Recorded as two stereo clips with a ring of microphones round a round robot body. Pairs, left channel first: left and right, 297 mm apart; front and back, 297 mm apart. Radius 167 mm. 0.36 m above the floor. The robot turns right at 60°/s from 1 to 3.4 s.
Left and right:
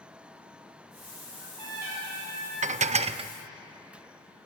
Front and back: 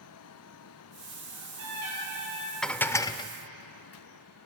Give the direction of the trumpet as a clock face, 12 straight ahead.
5 o'clock.